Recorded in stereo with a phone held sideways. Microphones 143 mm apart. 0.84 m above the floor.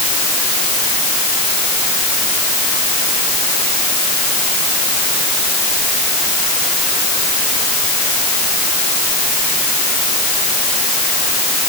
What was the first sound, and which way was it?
Only background noise.